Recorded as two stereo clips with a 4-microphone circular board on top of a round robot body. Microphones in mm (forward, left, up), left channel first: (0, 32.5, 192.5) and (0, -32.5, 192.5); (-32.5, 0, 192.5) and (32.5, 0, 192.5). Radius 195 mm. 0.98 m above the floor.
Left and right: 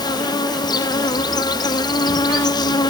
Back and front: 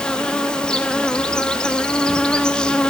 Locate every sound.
0.0 s an insect: 100° left, 0.7 m